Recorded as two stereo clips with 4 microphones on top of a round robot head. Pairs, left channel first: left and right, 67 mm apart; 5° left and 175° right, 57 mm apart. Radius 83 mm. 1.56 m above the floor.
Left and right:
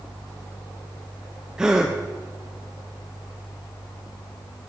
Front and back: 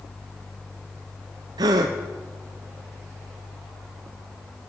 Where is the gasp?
175° right, 0.5 m.